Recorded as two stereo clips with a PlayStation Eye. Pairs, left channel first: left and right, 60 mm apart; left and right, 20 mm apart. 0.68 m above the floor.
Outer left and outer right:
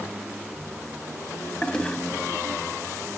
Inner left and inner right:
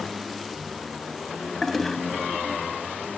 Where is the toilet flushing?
15° left (ahead or behind), 1.1 m.